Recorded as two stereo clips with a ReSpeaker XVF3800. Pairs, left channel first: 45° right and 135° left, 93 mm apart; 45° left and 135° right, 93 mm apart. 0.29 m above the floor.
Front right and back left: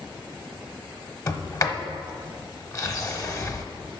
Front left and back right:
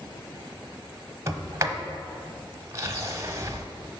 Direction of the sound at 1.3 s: 90° right.